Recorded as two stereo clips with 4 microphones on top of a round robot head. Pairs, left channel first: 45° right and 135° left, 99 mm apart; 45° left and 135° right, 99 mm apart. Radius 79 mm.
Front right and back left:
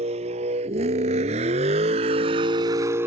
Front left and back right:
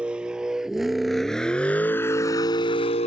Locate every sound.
0.0 s a vehicle: 145° left; by 3.1 s 65° left